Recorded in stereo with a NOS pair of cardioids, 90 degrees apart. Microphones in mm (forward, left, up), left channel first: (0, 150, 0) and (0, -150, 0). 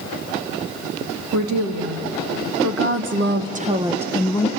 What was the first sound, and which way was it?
A woman speaking, 65° right.